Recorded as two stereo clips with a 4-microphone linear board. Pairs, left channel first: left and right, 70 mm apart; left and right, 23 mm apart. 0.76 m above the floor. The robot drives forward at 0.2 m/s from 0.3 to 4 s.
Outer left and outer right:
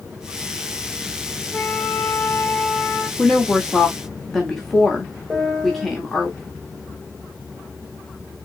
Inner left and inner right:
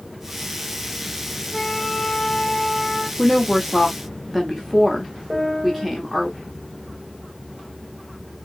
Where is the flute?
25° left (ahead or behind), 0.6 m; by 3.1 s 15° left (ahead or behind), 0.9 m.